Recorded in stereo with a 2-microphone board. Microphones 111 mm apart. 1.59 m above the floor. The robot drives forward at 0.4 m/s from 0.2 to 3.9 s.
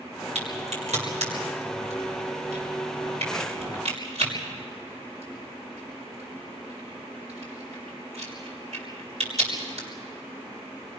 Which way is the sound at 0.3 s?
85° right.